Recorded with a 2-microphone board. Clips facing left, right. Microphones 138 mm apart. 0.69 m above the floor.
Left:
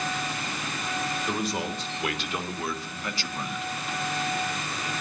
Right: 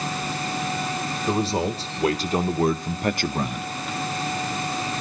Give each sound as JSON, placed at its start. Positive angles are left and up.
{"t": 1.3, "sound": "a man speaking", "side_deg": -30, "distance_m": 2.0}